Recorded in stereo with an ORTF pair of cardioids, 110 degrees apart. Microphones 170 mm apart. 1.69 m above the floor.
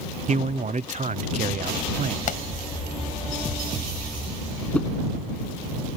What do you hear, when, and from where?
0.3 s a man speaking: 45° right
2.3 s a pop: 50° left
4.7 s a whoosh: 10° left